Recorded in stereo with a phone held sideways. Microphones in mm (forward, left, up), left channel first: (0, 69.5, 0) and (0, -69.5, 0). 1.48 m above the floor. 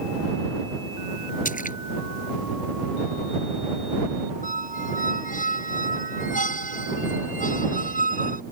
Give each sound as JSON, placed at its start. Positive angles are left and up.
{"t": 1.4, "sound": "a splash", "side_deg": 70}
{"t": 4.4, "sound": "a squeak", "side_deg": 70}